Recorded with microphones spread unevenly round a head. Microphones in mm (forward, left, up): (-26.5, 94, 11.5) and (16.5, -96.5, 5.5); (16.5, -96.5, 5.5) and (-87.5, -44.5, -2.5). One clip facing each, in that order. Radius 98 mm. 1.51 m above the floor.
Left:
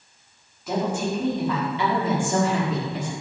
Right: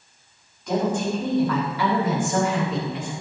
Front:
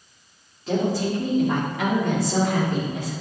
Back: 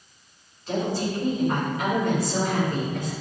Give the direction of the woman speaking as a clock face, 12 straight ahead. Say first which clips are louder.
Right 2 dB, front 3 dB; 11 o'clock.